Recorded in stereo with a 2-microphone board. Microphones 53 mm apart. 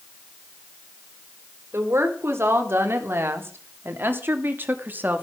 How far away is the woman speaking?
About 4 m.